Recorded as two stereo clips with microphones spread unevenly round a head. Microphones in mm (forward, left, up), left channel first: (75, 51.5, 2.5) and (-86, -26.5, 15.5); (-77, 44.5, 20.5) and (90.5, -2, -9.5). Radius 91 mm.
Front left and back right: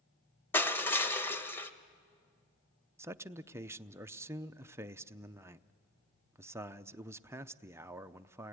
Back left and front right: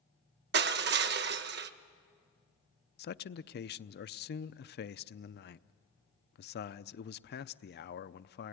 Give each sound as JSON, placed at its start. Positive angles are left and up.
{"t": 0.5, "sound": "crushing", "azimuth_deg": -55, "distance_m": 0.7}
{"t": 3.0, "sound": "a man speaking", "azimuth_deg": 130, "distance_m": 0.6}